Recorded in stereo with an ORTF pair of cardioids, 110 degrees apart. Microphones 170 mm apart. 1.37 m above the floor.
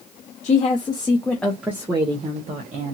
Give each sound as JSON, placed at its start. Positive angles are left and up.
{"t": 0.4, "sound": "a woman speaking", "azimuth_deg": 40, "distance_m": 1.1}